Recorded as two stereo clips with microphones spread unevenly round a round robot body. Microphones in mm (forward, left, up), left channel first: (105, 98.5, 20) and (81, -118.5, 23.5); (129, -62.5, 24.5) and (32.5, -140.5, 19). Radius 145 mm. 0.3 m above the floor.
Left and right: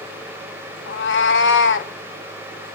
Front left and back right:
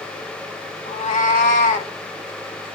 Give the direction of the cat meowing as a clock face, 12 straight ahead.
10 o'clock.